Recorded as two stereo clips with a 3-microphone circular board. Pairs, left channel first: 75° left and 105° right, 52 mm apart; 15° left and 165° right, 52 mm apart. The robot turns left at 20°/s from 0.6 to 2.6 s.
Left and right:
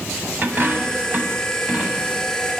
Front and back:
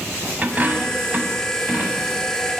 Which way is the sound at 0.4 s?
125° right.